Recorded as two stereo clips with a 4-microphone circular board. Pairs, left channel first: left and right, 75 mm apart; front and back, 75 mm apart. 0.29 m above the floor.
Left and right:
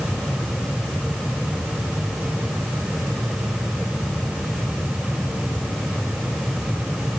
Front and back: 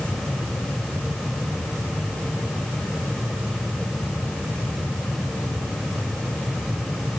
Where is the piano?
No piano in this recording.